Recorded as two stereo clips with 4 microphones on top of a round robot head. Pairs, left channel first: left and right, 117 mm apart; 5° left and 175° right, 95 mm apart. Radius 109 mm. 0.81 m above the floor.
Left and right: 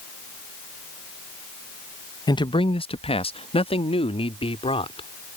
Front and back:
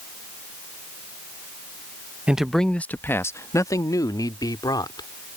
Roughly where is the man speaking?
Left.